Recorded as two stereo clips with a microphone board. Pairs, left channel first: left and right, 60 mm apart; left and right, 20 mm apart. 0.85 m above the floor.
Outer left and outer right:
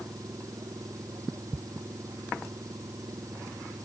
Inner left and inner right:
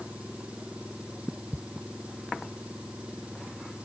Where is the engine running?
65° right (ahead or behind).